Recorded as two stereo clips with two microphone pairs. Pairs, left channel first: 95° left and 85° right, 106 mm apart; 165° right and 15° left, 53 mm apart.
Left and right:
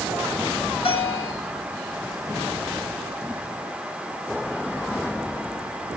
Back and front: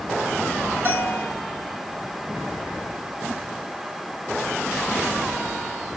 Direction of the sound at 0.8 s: 60° left.